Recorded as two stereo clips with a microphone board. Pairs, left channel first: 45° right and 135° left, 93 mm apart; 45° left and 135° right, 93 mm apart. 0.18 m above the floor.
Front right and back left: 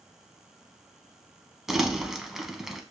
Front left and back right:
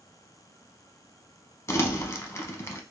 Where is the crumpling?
55° left, 0.6 m.